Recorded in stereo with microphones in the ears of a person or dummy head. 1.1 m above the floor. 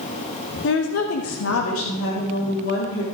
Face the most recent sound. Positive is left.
turn(degrees=65)  # may be behind; listen again after turning